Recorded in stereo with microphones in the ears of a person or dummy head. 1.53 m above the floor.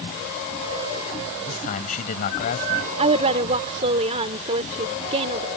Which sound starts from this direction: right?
A woman speaking, at 3.0 s.